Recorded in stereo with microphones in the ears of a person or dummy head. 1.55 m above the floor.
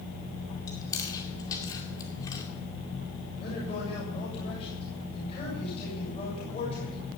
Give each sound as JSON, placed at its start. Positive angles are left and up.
{"t": 0.7, "sound": "chewing", "side_deg": 20, "distance_m": 2.5}
{"t": 3.4, "sound": "a man speaking", "side_deg": 30, "distance_m": 7.0}